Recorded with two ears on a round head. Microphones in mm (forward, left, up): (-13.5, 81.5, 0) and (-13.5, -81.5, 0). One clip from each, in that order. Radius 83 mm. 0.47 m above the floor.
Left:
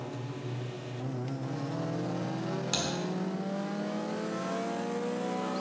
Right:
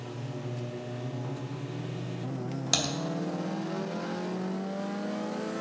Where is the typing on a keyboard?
30° right (ahead or behind), 1.2 m.